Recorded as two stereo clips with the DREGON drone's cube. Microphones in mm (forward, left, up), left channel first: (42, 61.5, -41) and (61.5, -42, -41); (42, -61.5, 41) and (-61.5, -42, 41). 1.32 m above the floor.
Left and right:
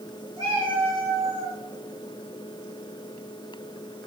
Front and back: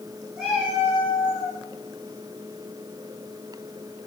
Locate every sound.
0.4 s a cat meowing: 110° right, 4 m